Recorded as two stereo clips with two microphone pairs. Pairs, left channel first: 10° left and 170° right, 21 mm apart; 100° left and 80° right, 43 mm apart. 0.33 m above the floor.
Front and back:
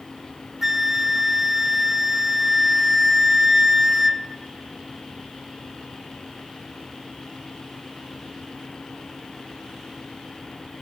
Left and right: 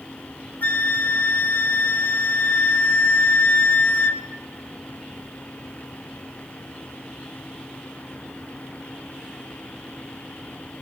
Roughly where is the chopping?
No chopping in this recording.